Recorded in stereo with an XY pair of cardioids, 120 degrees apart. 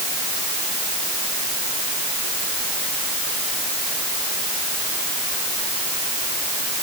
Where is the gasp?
No gasp in this recording.